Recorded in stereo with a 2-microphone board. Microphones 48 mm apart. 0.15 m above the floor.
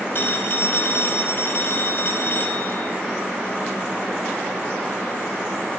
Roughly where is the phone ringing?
Left.